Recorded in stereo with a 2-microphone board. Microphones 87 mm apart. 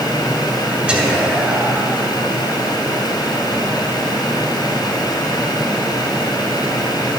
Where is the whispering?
15° right (ahead or behind), 2 m.